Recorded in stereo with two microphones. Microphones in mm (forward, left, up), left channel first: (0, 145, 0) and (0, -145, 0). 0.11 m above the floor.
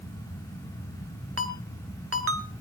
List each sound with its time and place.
1.4 s a ringtone: 50° right (ahead or behind), 1.6 m